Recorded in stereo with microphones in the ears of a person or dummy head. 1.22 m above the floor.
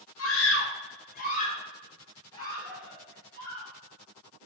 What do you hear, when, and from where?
0.2 s a scream: 70° left (ahead or behind), 1.0 m; by 3.7 s 10° left (ahead or behind), 2.5 m